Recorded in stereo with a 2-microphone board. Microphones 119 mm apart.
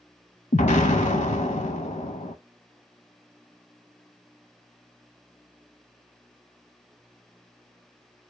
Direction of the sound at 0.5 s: 80° left.